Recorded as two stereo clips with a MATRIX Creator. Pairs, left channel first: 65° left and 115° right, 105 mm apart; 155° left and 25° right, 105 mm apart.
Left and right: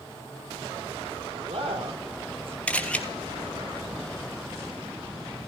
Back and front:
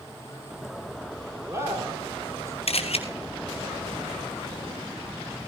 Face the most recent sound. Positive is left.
turn(degrees=145)